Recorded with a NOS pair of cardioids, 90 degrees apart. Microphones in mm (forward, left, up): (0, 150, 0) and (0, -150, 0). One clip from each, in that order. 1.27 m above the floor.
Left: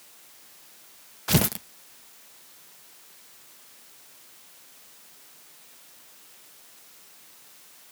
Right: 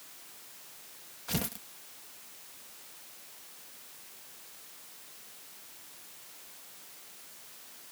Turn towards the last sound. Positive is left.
turn(degrees=65)